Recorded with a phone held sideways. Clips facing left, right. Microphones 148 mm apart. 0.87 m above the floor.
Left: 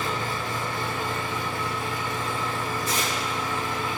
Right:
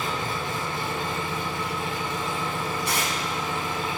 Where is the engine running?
25° right (ahead or behind), 2.5 m.